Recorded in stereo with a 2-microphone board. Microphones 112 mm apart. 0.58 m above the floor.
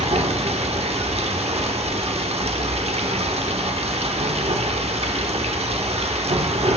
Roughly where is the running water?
Right.